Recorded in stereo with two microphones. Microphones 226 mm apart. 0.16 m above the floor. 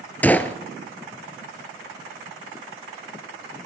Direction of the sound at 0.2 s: 5° left (ahead or behind).